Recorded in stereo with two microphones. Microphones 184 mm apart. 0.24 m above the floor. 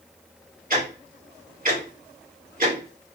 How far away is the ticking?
About 2 m.